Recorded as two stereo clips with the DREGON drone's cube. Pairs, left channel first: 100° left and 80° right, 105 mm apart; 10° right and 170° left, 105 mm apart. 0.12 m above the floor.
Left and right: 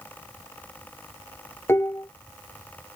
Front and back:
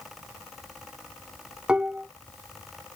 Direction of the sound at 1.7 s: 105° left.